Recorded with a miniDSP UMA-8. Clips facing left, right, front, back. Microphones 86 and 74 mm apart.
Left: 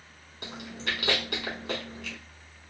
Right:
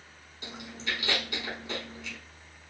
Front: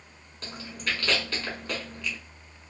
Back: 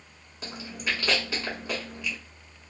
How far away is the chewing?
About 1.0 m.